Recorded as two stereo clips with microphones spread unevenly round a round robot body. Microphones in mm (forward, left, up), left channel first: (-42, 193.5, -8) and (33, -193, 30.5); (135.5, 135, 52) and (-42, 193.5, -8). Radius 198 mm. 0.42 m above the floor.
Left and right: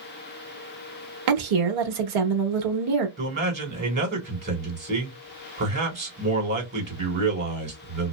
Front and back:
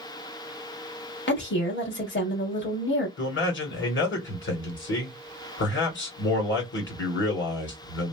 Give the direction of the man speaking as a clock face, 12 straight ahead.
1 o'clock.